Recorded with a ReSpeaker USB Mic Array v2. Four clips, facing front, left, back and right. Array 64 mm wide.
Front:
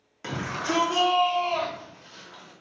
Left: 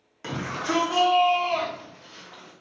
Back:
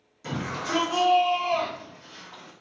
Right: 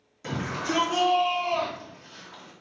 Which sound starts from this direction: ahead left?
A shout, at 0.2 s.